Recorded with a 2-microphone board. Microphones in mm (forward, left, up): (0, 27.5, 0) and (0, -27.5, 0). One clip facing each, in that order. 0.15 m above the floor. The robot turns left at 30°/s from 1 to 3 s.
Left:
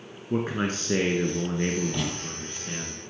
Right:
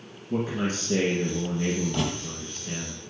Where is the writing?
Centre (ahead or behind), 2 m; by 2.1 s 5° right (ahead or behind), 2 m.